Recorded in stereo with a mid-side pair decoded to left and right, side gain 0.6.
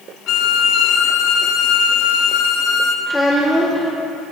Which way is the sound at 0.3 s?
65° left.